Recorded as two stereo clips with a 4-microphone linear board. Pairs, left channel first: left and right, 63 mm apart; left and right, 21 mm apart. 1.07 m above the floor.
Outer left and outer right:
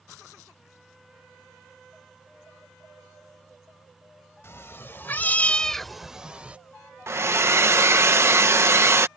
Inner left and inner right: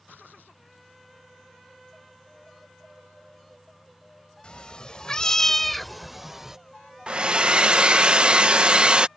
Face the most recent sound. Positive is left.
turn(degrees=-45)  # may be behind; listen again after turning